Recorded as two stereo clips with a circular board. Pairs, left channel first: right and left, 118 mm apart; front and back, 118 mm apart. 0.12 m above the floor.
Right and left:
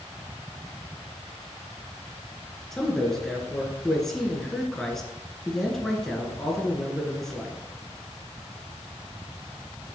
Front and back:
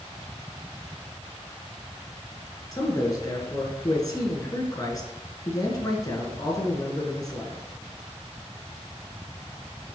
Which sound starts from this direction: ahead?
A man speaking, at 2.7 s.